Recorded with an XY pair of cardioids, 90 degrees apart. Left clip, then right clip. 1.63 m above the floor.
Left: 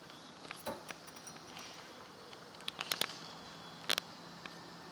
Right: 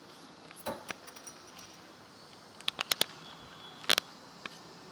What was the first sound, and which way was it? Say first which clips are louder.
A clink: right 6 dB; 30° right.